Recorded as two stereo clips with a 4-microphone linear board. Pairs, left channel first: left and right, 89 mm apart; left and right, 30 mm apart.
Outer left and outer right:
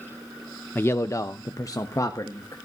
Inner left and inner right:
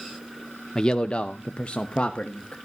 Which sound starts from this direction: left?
A man speaking, at 0.8 s.